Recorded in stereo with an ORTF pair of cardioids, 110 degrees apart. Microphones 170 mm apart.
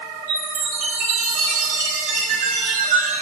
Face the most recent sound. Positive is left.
turn(degrees=-55)